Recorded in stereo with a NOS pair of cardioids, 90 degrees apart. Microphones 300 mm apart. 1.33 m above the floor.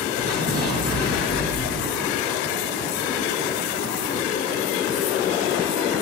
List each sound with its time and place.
0.2 s an explosion: 35° left, 7.5 m